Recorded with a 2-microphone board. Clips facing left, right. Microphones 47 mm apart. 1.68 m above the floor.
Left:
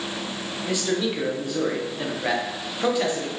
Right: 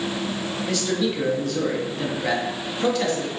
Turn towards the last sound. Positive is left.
turn(degrees=15)  # may be behind; listen again after turning